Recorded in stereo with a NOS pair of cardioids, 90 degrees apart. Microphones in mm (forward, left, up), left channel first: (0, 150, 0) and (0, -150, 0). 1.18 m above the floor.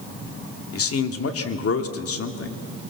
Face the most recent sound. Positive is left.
turn(degrees=50)